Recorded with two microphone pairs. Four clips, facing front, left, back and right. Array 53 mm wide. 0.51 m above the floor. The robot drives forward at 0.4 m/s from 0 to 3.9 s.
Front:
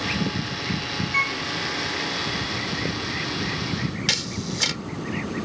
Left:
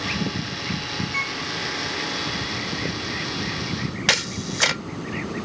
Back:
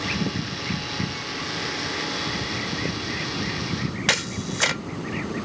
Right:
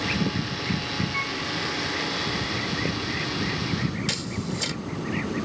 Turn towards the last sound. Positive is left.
turn(degrees=120)